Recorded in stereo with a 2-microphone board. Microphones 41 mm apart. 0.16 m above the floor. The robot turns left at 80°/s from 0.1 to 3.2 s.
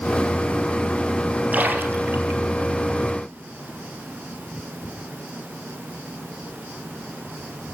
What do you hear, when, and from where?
1.5 s a splash: 40° right (ahead or behind), 3.5 m; by 2.4 s 60° right (ahead or behind), 3.5 m